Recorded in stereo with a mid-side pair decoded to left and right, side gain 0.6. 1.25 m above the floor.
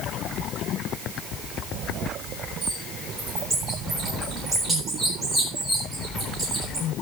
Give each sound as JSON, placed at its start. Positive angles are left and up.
{"t": 2.6, "sound": "a bird", "azimuth_deg": -20, "distance_m": 10.0}